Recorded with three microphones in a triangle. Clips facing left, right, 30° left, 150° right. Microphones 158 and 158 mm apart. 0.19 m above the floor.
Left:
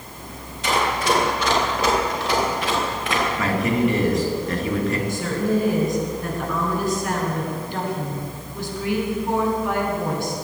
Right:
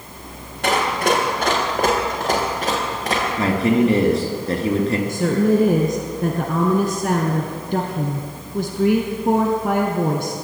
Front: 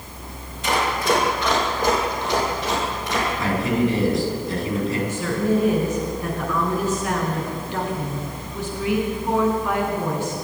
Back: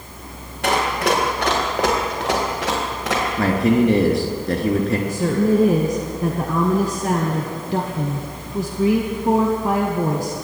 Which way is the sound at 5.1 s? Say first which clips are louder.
Right 5 dB, back 5 dB; 105° right.